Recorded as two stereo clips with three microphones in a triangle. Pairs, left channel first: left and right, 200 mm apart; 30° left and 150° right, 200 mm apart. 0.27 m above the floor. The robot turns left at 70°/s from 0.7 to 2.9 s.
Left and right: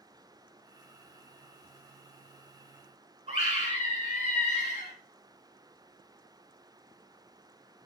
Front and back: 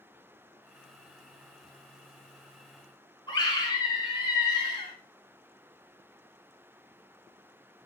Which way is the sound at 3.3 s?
40° right.